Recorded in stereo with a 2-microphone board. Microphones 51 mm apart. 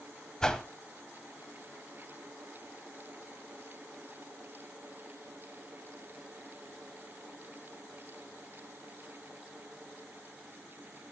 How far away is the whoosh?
About 1.6 m.